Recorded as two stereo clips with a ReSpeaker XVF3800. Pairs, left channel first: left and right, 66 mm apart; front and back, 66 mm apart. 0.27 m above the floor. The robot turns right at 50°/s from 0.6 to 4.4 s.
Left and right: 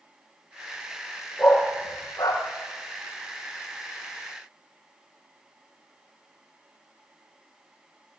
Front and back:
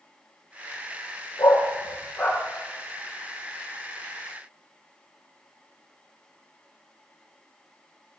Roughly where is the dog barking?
Ahead.